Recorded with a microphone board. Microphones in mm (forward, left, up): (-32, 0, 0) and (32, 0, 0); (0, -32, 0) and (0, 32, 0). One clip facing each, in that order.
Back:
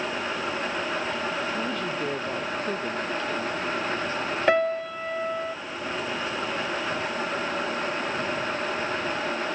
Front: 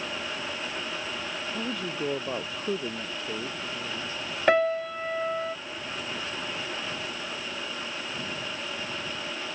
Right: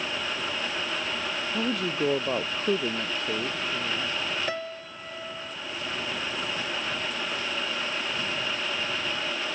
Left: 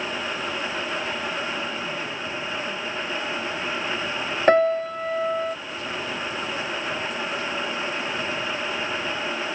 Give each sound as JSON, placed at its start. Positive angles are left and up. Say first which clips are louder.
{"t": 1.5, "sound": "a woman speaking", "louder": "back 4 dB, right 1 dB", "azimuth_deg": -85}
{"t": 4.5, "sound": "a piano", "louder": "front 1 dB, left 16 dB", "azimuth_deg": 90}